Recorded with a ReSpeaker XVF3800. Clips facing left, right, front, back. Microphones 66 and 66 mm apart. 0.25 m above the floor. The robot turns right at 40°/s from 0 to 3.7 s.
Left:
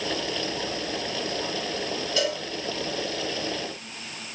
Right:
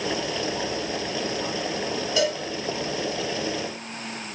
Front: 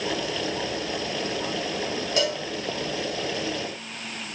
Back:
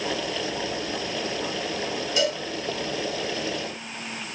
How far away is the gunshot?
No gunshot in this recording.